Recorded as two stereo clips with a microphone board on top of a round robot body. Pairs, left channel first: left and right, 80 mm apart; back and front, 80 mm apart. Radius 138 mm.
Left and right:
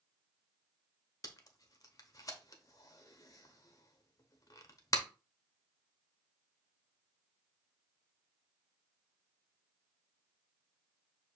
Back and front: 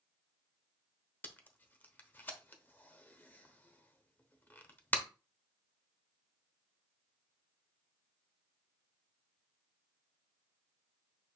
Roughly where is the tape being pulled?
Behind left.